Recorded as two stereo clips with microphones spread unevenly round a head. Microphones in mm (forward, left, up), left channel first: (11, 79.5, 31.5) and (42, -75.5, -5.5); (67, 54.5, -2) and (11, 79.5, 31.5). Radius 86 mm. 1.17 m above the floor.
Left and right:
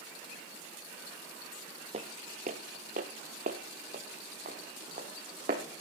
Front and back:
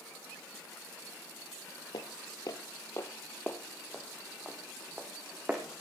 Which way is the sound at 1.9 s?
45° right.